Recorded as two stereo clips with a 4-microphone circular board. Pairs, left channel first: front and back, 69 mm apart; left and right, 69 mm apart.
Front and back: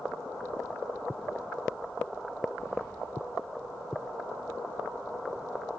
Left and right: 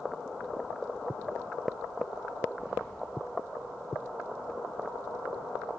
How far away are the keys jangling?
About 2.5 m.